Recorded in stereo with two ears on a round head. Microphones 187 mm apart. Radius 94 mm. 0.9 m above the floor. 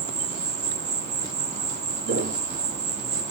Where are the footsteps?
45° right (ahead or behind), 1.5 m.